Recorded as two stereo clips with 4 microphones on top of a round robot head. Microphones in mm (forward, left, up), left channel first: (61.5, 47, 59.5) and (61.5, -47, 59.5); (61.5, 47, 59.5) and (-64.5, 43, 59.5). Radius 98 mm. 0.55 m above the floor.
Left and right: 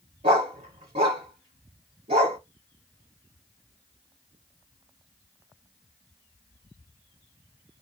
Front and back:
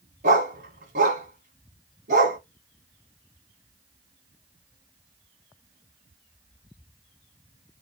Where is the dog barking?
140° right, 1.4 m.